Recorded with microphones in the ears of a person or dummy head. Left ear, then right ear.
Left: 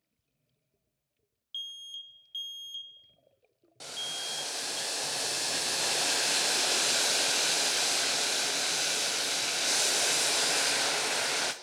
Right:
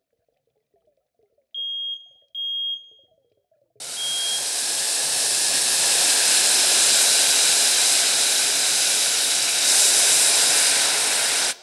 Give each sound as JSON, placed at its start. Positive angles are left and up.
{"t": 1.5, "sound": "an alarm", "side_deg": 5, "distance_m": 1.4}
{"t": 3.8, "sound": "boiling", "side_deg": -25, "distance_m": 0.6}